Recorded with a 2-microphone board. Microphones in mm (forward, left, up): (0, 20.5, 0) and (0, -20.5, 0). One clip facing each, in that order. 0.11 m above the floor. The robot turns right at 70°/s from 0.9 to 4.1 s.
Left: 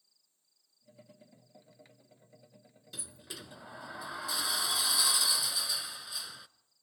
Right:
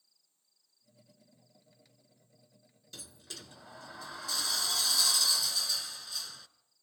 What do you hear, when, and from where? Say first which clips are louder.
2.9 s a sliding door: left 2 dB; 15° left (ahead or behind), 0.6 m